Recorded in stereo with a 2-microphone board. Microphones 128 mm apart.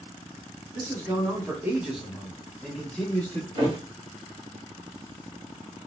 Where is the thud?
35° right (ahead or behind), 1.1 m.